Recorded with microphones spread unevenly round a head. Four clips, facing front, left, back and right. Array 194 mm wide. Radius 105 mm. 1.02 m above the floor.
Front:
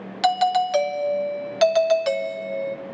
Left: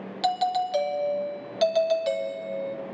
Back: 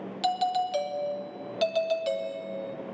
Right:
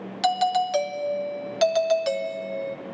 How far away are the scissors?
No scissors in this recording.